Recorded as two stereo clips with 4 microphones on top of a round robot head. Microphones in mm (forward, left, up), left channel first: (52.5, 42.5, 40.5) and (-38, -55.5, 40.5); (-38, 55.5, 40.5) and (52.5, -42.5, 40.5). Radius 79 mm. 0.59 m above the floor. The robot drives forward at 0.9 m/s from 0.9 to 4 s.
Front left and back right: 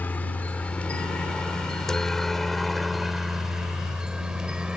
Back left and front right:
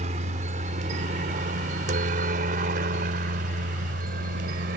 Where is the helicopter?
30° right; by 4.8 s 50° right.